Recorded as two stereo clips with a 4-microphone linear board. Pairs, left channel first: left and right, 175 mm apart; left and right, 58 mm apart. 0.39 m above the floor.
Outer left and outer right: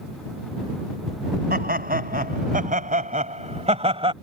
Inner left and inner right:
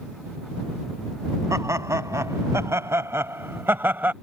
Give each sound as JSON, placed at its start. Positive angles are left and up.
{"t": 1.5, "sound": "laughter", "side_deg": -70}